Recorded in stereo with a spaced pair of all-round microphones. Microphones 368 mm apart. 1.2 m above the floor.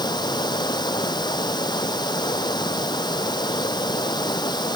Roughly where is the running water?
Centre.